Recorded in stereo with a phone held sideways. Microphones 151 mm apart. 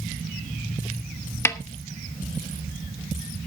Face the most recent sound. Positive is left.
turn(degrees=15)  # may be behind; listen again after turning